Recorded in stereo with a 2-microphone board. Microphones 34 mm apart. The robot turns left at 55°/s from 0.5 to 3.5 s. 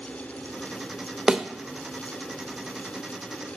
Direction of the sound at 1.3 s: 25° right (ahead or behind).